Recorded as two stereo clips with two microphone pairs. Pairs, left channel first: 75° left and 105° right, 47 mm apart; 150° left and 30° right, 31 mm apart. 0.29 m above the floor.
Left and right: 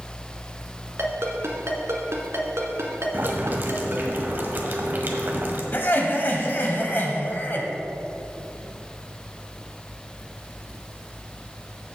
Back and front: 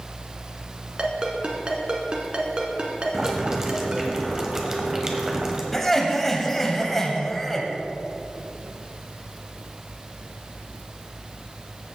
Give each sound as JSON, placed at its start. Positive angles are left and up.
{"t": 1.0, "sound": "a ringtone", "azimuth_deg": -85, "distance_m": 1.6}
{"t": 3.1, "sound": "boiling", "azimuth_deg": -95, "distance_m": 1.3}
{"t": 5.7, "sound": "laughter", "azimuth_deg": 70, "distance_m": 1.5}